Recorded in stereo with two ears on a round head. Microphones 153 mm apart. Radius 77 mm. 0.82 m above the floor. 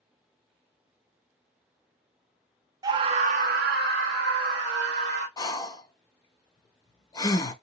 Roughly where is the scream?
Right.